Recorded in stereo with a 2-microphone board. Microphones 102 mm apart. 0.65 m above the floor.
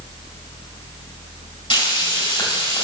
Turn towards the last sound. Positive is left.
turn(degrees=55)  # may be behind; listen again after turning